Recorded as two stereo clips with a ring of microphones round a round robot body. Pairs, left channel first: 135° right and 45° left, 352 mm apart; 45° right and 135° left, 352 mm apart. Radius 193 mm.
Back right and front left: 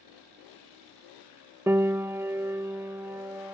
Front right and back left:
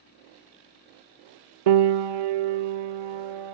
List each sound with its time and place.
1.7 s a piano: 130° left